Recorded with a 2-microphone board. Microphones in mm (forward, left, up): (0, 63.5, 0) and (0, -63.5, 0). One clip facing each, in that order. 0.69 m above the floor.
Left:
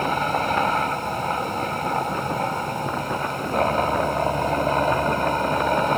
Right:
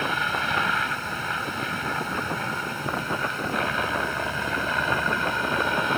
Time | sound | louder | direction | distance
0.0 | a helicopter | left 5 dB | 40° left (ahead or behind) | ?